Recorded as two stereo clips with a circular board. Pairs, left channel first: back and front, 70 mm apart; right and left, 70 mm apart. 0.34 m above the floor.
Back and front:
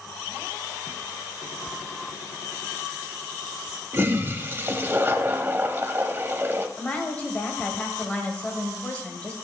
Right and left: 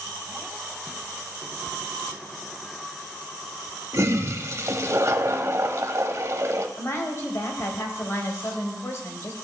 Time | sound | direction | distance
3.9 | a toilet flushing | 55° left | 0.7 m
6.8 | a woman speaking | 115° right | 1.8 m